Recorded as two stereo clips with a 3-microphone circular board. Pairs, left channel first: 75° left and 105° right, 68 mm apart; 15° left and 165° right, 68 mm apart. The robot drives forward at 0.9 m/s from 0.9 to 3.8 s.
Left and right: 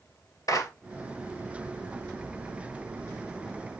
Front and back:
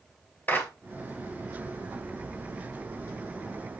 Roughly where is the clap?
Ahead left.